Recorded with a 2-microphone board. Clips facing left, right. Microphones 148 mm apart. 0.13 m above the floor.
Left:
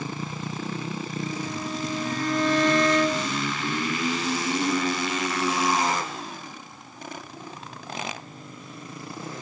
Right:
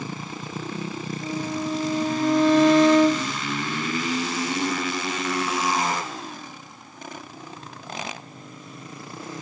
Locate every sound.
1.2 s a violin: 5° right (ahead or behind), 2 m